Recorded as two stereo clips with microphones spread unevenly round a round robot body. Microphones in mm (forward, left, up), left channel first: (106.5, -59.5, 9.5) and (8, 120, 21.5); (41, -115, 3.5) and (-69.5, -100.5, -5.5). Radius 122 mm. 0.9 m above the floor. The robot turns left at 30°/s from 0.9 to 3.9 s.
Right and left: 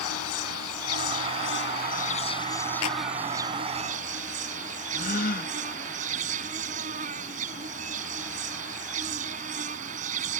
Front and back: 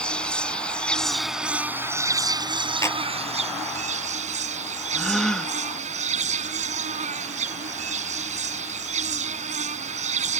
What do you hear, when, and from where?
0.0 s an insect: 90° right; by 10.4 s straight behind
2.8 s a clap: 70° right; by 3.1 s 80° right
4.9 s a gasp: 95° right